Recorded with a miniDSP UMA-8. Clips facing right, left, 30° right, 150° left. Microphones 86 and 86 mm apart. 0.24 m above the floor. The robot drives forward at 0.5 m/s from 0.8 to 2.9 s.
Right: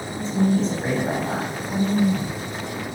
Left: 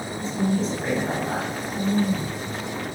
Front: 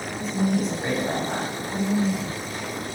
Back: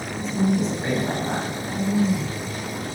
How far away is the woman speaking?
About 1.4 m.